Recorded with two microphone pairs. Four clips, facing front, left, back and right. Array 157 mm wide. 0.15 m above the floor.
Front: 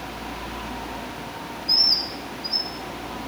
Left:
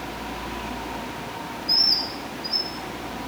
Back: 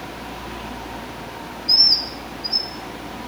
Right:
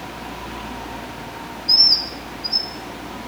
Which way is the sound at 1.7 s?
140° right.